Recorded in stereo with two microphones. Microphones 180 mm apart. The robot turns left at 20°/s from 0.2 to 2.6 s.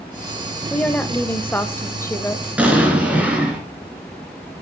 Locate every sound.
0.7 s a woman speaking: 5° left (ahead or behind), 0.9 m; by 2.5 s 15° left (ahead or behind), 0.9 m
2.6 s an explosion: 10° right (ahead or behind), 2.5 m; by 3.6 s 5° right (ahead or behind), 2.5 m